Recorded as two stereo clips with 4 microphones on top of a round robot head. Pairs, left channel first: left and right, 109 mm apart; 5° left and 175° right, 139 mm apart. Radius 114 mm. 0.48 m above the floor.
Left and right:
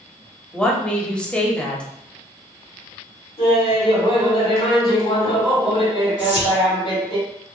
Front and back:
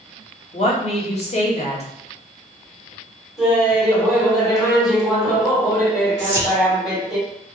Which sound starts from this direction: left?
Laughter, at 3.4 s.